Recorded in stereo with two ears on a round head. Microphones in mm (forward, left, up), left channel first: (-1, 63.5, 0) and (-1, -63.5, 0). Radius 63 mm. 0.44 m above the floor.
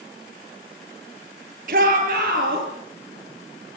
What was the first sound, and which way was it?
A shout, 65° right (ahead or behind).